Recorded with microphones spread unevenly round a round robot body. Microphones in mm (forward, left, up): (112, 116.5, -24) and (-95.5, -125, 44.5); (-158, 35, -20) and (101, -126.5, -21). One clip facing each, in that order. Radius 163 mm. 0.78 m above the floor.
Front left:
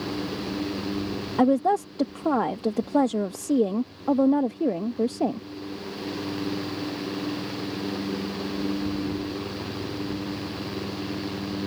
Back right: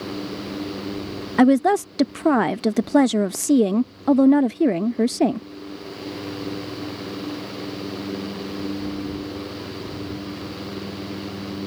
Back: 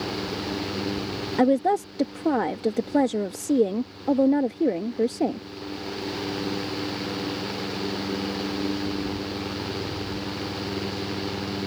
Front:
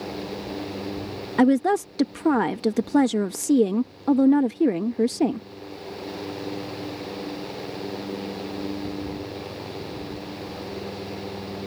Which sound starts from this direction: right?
A woman speaking, at 1.4 s.